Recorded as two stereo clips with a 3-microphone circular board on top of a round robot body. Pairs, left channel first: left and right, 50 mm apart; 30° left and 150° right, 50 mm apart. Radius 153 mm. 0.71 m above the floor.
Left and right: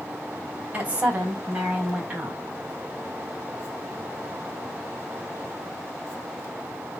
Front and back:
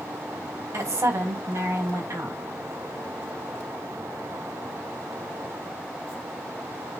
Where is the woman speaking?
150° right, 4 m; by 2.4 s 155° right, 5 m.